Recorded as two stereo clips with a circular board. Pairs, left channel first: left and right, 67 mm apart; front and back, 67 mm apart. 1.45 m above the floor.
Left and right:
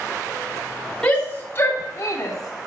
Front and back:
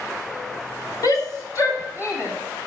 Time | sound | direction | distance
1.0 | a shout | 15° left | 3 m